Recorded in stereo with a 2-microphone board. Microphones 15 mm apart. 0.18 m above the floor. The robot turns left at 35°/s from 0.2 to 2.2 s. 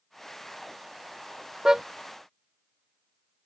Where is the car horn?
30° right (ahead or behind); by 1.8 s 35° right (ahead or behind).